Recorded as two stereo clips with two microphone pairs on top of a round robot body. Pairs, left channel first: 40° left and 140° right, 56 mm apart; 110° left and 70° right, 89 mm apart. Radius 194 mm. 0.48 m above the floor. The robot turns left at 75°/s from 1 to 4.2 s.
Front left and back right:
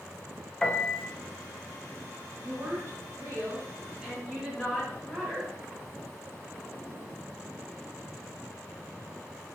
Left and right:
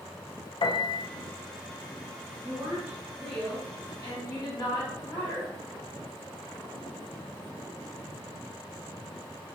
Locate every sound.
0.6 s a piano: 110° left, 0.5 m; by 1.1 s 105° left, 0.5 m
2.4 s a woman speaking: 100° right, 1.5 m; by 5.5 s 125° left, 1.5 m